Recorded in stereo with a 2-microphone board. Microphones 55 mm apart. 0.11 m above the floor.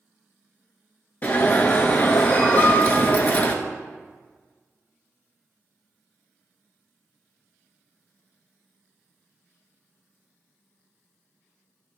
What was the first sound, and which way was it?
An alarm, 30° left (ahead or behind).